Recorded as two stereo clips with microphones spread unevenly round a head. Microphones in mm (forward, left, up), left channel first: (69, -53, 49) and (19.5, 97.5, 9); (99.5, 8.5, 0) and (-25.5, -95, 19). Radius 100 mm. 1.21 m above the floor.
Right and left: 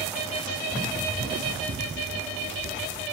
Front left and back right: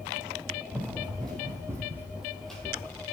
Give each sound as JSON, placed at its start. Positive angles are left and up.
{"t": 0.7, "sound": "running footsteps", "azimuth_deg": 165, "distance_m": 3.0}